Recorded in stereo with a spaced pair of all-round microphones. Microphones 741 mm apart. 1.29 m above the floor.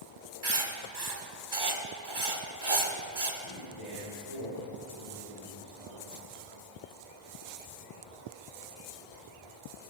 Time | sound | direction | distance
0.4 | writing | 30° right (ahead or behind) | 1.1 m
3.4 | a man speaking | 40° left (ahead or behind) | 5 m